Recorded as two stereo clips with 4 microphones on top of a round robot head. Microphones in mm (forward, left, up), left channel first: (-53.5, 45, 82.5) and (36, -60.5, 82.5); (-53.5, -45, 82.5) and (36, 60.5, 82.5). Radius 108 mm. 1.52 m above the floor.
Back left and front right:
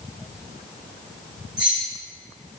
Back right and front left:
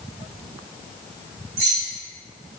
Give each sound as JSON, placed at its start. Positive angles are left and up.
{"t": 1.6, "sound": "keys jangling", "azimuth_deg": 10, "distance_m": 1.2}